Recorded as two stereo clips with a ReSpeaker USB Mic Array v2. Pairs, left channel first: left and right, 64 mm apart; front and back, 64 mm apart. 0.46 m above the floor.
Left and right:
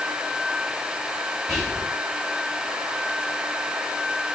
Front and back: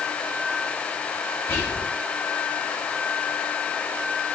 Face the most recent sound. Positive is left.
turn(degrees=0)